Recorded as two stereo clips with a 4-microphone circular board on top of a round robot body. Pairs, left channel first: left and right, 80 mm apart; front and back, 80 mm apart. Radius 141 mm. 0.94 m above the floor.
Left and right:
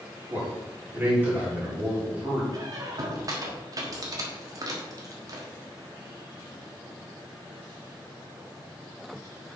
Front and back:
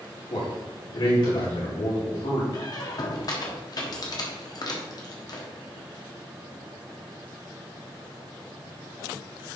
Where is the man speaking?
20° right, 3.5 m.